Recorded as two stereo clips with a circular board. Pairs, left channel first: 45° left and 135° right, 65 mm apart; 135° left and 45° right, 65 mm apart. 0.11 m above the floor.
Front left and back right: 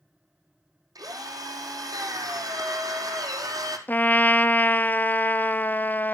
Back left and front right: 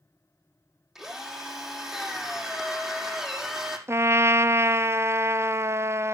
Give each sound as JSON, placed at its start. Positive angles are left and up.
{"t": 0.9, "sound": "a drill", "azimuth_deg": -130, "distance_m": 4.5}
{"t": 3.9, "sound": "a trumpet", "azimuth_deg": -10, "distance_m": 0.5}